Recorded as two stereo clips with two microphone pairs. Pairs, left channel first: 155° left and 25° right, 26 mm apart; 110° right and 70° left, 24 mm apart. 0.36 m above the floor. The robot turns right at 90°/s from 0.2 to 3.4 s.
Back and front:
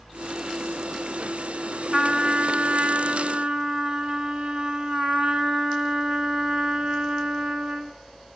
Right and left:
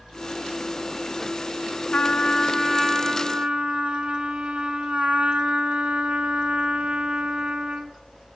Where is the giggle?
No giggle in this recording.